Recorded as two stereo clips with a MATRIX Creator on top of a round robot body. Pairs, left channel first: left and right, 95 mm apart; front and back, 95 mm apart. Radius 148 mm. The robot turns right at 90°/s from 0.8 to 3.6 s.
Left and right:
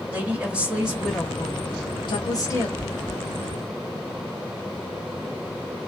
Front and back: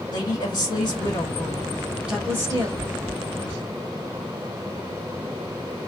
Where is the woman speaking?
15° right, 1.5 m; by 2.7 s 155° left, 1.5 m.